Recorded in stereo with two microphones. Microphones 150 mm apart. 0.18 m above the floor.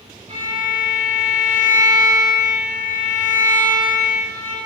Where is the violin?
45° right (ahead or behind), 0.8 m.